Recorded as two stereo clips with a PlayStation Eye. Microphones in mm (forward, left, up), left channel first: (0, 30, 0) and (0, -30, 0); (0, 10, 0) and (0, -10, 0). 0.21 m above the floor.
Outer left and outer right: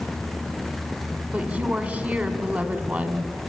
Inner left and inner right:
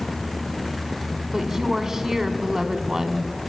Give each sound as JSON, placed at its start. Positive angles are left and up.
{"t": 1.3, "sound": "a woman speaking", "side_deg": -25, "distance_m": 1.6}